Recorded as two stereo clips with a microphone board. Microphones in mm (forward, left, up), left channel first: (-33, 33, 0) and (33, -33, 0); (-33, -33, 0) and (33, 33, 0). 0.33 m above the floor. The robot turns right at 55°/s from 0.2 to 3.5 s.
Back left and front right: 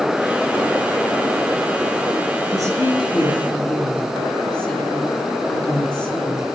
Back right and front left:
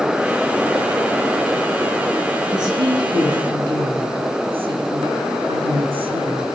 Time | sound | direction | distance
2.5 | a woman speaking | straight ahead | 3.5 m